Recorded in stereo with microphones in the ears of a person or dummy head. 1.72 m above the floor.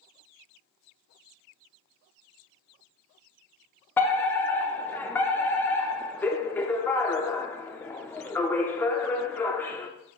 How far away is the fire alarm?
About 0.6 m.